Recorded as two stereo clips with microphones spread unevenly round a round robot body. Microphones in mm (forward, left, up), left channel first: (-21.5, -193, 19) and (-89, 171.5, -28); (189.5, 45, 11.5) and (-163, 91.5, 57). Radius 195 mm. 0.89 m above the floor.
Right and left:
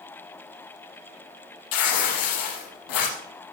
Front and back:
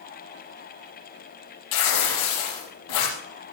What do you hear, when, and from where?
1.7 s tearing paper: 45° right, 6 m